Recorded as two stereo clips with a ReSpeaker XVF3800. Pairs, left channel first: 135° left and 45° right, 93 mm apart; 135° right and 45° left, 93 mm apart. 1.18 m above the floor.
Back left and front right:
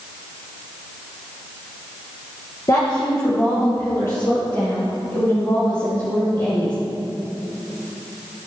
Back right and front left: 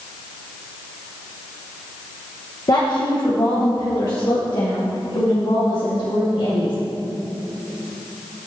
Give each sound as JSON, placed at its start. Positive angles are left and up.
{"t": 2.7, "sound": "a woman speaking", "azimuth_deg": -175, "distance_m": 1.2}